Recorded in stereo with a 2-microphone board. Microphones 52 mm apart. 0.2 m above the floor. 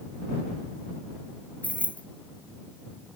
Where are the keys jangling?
30° left (ahead or behind).